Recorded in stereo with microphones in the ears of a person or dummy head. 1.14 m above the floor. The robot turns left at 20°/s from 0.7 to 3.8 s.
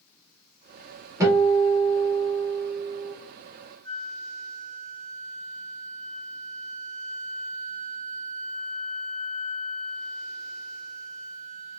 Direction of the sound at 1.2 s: 20° right.